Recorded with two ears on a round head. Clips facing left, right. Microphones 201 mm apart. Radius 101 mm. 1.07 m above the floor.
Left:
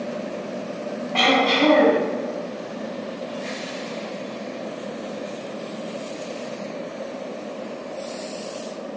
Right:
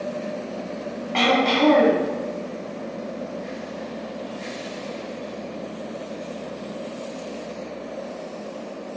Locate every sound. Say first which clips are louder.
1.1 s throat clearing: even; 30° right (ahead or behind), 1.7 m